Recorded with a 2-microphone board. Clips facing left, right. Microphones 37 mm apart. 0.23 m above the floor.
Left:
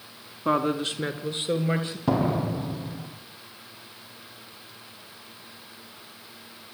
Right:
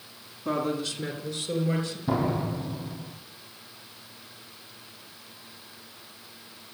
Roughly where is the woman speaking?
Left.